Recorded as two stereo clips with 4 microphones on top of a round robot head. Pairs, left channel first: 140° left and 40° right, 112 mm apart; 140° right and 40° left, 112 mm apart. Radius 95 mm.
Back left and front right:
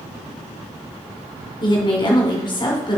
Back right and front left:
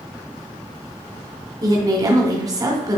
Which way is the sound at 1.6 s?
95° left.